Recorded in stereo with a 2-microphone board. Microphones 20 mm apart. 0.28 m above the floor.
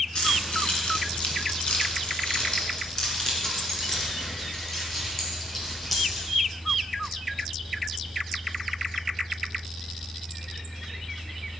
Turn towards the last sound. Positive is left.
turn(degrees=10)  # may be behind; listen again after turning